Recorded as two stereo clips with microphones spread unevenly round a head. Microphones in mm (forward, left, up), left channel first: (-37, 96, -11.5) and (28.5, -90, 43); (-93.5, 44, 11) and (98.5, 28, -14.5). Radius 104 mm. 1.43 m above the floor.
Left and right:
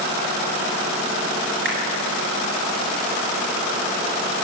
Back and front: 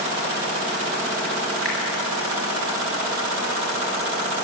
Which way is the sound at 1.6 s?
100° right.